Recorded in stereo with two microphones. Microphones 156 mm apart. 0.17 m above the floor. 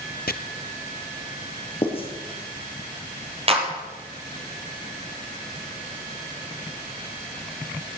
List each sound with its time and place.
0.3 s chopping: 80° left, 0.9 m
1.8 s writing: 40° left (ahead or behind), 3.5 m
3.5 s a clap: 40° right (ahead or behind), 3 m